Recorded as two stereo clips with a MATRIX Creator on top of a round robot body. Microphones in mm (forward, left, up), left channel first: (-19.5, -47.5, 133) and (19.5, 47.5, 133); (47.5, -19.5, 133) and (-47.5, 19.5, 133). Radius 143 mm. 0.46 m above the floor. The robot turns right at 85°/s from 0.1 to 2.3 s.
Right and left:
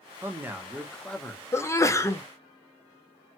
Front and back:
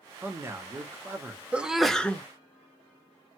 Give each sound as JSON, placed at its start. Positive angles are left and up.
{"t": 0.2, "sound": "a man speaking", "azimuth_deg": 100, "distance_m": 1.1}
{"t": 1.5, "sound": "a sneeze", "azimuth_deg": -140, "distance_m": 0.8}